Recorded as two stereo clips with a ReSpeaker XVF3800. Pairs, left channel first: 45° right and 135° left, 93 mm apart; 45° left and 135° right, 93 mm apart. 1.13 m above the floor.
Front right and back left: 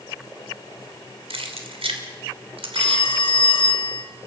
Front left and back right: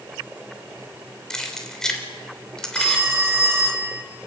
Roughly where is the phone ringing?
Right.